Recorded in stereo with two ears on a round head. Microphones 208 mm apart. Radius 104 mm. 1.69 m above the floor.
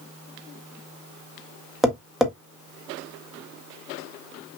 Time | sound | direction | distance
1.8 | tapping | centre (ahead or behind) | 1.4 m